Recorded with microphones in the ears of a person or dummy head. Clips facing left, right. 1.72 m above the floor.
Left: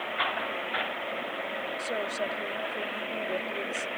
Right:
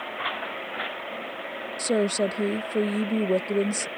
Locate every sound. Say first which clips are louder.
1.8 s a woman speaking: right 11 dB; 30° right (ahead or behind)